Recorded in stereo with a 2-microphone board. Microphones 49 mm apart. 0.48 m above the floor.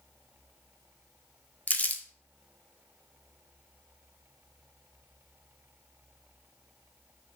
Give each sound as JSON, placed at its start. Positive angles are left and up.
{"t": 1.7, "sound": "crumpling", "side_deg": 35, "distance_m": 0.8}